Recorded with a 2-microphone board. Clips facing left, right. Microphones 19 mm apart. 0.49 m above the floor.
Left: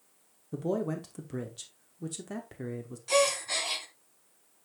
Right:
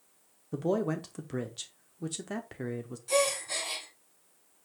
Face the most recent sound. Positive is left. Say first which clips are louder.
# left 2 dB
turn(degrees=25)  # may be behind; listen again after turning